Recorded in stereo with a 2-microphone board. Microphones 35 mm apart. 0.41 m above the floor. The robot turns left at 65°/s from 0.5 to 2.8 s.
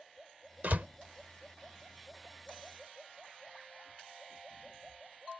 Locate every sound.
0.6 s a door slam: 55° right (ahead or behind); by 0.9 s 50° right (ahead or behind)